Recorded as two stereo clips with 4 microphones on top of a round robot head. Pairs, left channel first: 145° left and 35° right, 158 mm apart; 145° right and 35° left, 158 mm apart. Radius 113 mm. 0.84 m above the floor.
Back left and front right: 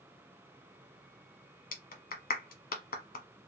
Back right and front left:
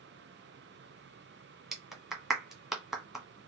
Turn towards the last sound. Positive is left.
turn(degrees=125)